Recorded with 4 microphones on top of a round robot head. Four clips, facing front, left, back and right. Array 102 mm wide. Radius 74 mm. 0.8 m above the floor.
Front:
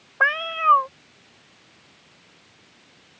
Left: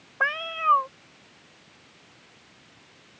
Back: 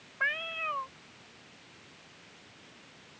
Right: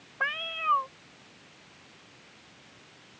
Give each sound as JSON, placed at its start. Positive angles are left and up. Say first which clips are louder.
{"t": 0.2, "sound": "a cat meowing", "louder": "left 6 dB, front 13 dB", "azimuth_deg": 15}